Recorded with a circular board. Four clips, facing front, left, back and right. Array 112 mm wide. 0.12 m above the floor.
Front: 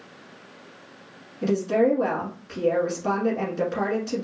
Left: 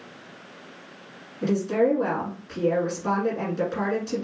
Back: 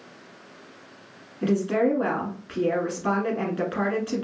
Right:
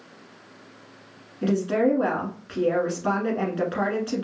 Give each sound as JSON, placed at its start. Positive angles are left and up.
{"t": 1.4, "sound": "a woman speaking", "azimuth_deg": -135, "distance_m": 1.4}